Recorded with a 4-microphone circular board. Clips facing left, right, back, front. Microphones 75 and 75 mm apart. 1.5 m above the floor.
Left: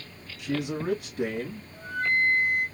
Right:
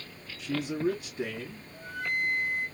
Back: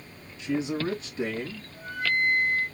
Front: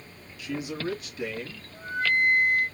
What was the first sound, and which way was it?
A man speaking, 115° left.